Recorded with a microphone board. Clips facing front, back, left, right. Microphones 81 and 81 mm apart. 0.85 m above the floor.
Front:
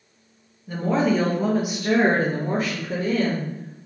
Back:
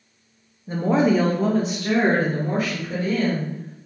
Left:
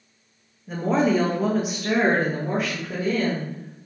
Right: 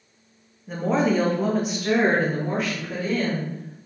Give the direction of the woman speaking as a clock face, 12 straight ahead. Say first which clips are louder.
Back 2 dB, left 1 dB; 6 o'clock.